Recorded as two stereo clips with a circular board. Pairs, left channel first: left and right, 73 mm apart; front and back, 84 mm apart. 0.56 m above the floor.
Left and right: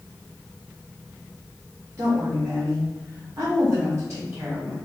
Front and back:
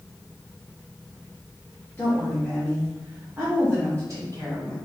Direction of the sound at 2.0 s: 55° right.